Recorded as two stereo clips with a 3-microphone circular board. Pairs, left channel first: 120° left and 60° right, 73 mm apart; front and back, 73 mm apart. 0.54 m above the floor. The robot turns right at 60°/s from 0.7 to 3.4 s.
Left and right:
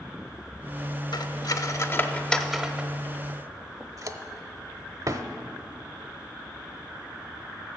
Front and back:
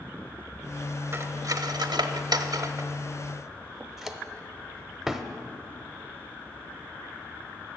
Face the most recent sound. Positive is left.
turn(degrees=-95)